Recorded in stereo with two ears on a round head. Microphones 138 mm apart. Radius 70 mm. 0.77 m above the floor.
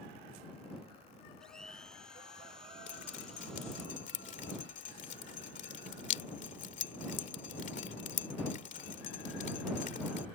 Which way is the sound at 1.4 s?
5° left (ahead or behind).